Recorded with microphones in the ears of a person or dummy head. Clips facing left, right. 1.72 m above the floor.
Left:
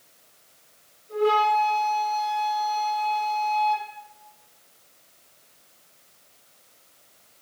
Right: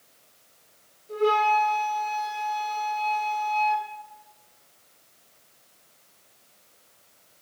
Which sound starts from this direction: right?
A flute, at 1.1 s.